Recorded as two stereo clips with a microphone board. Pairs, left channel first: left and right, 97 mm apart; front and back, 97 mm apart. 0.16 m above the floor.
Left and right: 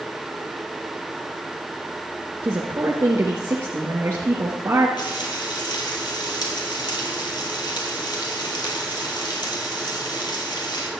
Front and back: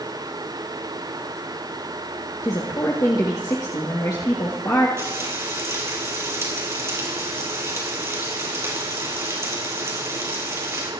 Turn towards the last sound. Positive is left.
turn(degrees=120)